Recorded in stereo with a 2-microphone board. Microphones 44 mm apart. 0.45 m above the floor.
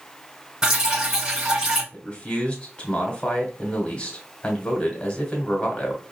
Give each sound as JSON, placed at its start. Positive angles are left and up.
{"t": 0.6, "sound": "dripping", "side_deg": -10, "distance_m": 2.5}
{"t": 1.9, "sound": "a man speaking", "side_deg": 25, "distance_m": 1.4}